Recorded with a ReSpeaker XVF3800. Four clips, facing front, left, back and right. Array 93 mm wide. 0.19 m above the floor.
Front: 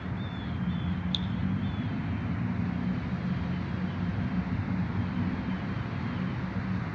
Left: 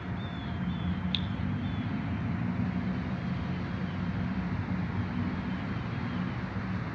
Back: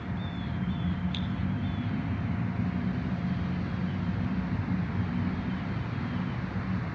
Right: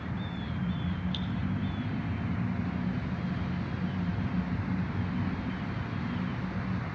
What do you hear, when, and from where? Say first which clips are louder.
1.1 s dripping: left 1 dB, even; 120° left, 0.6 m